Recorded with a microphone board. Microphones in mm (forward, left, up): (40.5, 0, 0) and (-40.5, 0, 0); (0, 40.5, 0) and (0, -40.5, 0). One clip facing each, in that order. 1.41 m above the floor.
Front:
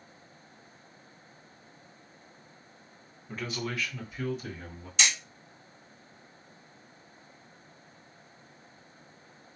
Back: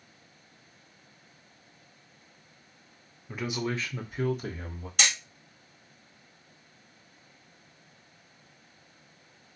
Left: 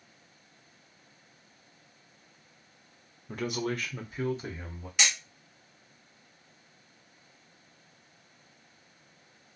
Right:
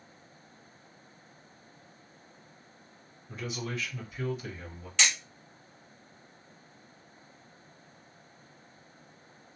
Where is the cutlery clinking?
No cutlery clinking in this recording.